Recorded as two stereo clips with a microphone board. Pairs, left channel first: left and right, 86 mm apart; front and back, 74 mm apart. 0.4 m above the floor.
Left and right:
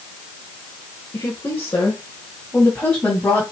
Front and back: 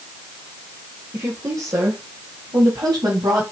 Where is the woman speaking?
145° left, 1.4 m; by 3.4 s 165° left, 2.5 m.